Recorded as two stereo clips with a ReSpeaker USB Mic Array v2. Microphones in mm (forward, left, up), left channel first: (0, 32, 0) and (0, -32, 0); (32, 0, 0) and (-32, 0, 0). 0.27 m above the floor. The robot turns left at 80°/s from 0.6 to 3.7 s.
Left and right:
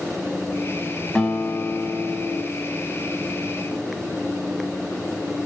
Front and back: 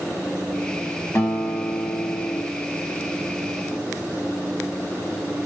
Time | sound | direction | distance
1.1 | a guitar | 15° left | 0.9 m